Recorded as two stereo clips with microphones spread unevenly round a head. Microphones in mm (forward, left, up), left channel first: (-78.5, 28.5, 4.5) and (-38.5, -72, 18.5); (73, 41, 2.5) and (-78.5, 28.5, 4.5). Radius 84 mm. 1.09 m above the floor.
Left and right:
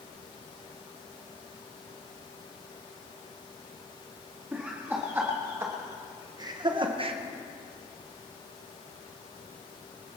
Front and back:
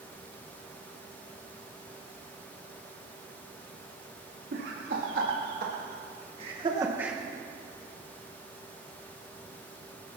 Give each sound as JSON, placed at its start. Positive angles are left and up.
{"t": 4.5, "sound": "laughter", "azimuth_deg": -145, "distance_m": 3.0}